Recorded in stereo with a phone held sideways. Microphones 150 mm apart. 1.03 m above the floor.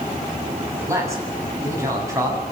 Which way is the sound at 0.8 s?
20° right (ahead or behind).